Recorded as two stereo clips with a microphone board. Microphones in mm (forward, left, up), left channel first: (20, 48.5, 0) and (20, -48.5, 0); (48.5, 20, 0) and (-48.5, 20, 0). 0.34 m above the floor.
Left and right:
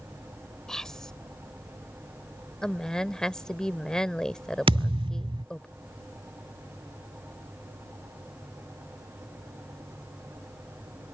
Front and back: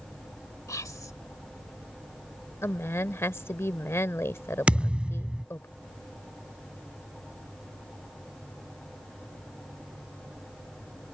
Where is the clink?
I don't hear a clink.